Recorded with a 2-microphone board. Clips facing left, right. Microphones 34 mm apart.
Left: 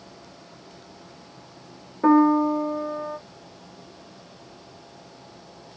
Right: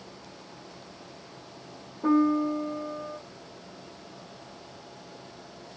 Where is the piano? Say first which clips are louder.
Left 6 dB; 65° left (ahead or behind), 0.6 m.